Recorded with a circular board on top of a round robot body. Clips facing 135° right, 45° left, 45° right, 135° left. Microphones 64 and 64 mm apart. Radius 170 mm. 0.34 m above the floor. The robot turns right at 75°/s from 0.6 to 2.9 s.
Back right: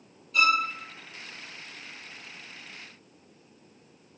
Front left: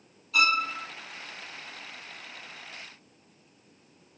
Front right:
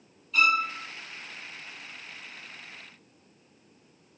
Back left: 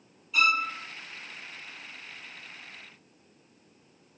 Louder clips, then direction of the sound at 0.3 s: Back right 1 dB, front right 1 dB; 50° left.